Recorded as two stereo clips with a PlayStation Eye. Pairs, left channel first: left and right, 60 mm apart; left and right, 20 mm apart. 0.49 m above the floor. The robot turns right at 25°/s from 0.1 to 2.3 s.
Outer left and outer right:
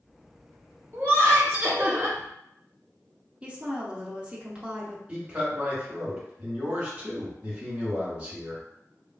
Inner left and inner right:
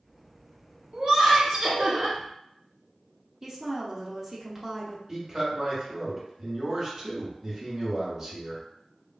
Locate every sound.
0.9 s laughter: 105° right, 1.3 m; by 2.2 s 70° right, 1.3 m
3.4 s a woman speaking: 20° right (ahead or behind), 0.8 m
5.1 s a man speaking: 20° right (ahead or behind), 1.6 m